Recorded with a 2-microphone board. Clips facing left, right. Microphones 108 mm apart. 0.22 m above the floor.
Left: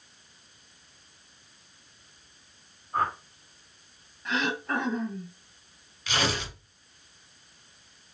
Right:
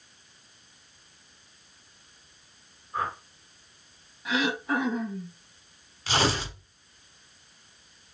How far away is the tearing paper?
About 1.3 m.